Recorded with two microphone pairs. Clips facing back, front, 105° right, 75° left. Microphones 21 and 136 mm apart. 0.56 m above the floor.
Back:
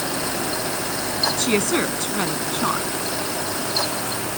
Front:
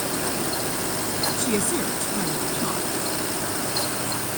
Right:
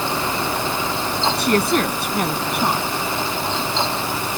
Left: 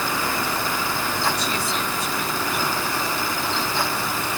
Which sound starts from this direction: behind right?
A woman speaking, at 1.4 s.